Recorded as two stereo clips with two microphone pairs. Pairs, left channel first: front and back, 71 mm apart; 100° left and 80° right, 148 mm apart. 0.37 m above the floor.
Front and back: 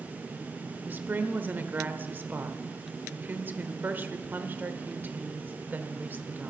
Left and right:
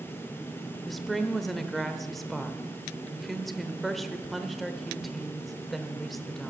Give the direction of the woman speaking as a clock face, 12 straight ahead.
6 o'clock.